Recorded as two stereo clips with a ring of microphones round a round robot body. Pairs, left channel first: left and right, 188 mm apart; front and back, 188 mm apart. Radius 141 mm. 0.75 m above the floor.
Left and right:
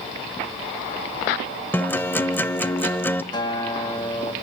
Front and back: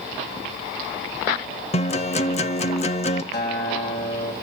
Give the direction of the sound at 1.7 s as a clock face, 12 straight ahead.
11 o'clock.